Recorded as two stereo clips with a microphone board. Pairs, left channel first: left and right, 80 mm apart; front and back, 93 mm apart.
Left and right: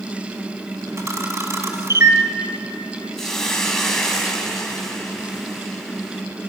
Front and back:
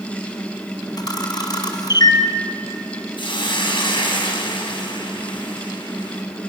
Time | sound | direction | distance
1.0 | a camera shutter | 40° right | 2 m
3.2 | a hiss | 5° left | 3.5 m